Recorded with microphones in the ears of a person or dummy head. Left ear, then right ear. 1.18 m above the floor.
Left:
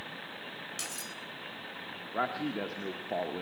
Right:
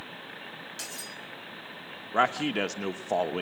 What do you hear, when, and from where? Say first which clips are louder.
0.8 s cutlery clinking: right 1 dB; 5° left (ahead or behind), 0.9 m
2.1 s a man speaking: right 8 dB; 70° right (ahead or behind), 1.0 m